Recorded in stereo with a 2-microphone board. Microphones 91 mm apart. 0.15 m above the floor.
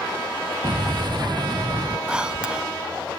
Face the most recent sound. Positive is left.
turn(degrees=-10)  # may be behind; listen again after turning